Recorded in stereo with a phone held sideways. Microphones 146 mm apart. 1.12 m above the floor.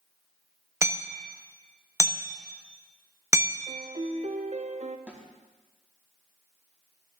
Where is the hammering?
20° right (ahead or behind), 1.1 m.